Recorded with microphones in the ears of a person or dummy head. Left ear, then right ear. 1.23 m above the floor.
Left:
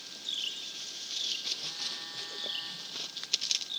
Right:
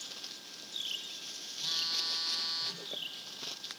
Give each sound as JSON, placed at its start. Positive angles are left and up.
{"t": 1.6, "sound": "a phone buzzing", "side_deg": -50, "distance_m": 2.5}